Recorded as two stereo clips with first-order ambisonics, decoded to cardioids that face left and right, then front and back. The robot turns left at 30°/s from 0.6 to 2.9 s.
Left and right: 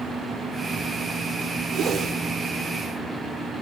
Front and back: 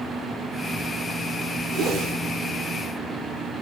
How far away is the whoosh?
About 0.8 m.